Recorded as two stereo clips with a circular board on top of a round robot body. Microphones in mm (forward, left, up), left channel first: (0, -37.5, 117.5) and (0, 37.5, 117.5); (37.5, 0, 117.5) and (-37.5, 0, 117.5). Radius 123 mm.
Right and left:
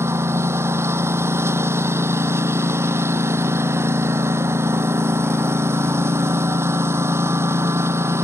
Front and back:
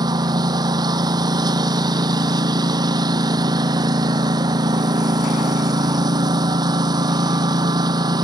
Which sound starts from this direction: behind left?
A lawn mower, at 0.0 s.